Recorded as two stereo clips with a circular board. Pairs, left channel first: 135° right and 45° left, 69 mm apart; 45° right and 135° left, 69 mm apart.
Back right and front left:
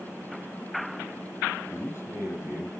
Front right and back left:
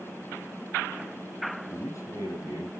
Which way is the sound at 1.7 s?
80° right.